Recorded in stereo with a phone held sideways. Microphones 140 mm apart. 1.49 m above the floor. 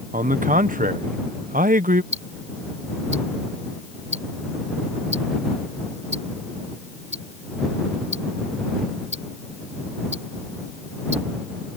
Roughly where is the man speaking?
Right.